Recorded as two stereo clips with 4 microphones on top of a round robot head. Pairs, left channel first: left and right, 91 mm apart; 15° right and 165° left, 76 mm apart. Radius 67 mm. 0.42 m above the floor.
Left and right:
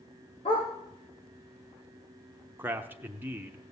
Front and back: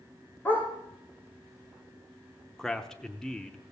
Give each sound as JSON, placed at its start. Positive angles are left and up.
{"t": 0.5, "sound": "a dog barking", "azimuth_deg": 55, "distance_m": 5.0}
{"t": 2.6, "sound": "a man speaking", "azimuth_deg": -85, "distance_m": 0.9}